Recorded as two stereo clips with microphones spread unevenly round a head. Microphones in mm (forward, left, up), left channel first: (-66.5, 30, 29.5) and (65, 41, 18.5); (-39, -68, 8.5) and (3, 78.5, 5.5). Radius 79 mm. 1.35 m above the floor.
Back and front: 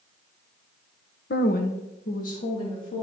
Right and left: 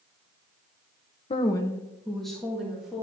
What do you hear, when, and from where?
1.3 s a woman speaking: 160° right, 0.7 m; by 3.0 s 160° left, 3 m